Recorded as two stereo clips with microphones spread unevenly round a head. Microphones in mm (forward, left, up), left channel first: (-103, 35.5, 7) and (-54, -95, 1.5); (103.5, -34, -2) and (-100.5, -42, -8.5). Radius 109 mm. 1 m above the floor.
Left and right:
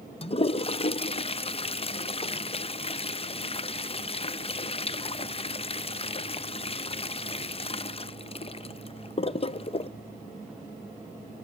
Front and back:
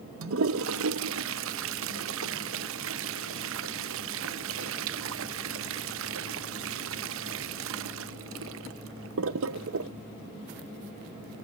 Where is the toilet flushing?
160° left, 0.8 m.